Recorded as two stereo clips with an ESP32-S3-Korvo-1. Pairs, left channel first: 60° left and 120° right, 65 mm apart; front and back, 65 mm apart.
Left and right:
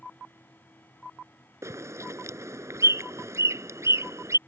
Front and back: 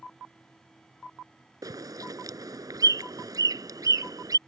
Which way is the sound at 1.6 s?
160° right.